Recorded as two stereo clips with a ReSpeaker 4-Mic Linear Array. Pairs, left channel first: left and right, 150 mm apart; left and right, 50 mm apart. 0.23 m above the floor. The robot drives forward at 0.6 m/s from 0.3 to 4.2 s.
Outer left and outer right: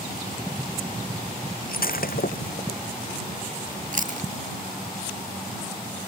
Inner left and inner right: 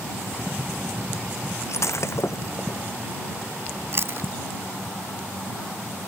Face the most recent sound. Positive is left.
turn(degrees=-50)  # may be behind; listen again after turning